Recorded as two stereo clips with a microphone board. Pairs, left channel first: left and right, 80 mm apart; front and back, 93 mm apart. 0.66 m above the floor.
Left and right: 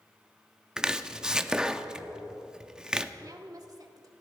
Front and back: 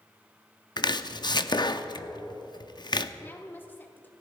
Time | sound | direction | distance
0.8 | chopping | 10° right | 0.6 m
3.2 | a woman speaking | 65° right | 2 m